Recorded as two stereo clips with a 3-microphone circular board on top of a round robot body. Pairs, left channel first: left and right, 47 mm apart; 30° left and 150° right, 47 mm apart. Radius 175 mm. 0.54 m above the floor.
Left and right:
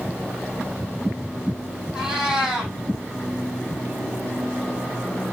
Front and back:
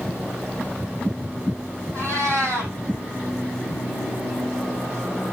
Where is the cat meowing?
165° right, 5.5 m.